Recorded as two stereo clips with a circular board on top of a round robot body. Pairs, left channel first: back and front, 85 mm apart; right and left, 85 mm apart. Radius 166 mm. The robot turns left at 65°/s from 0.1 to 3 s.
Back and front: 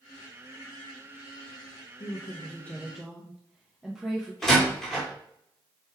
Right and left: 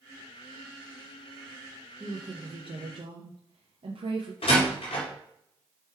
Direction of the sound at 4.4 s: 95° right.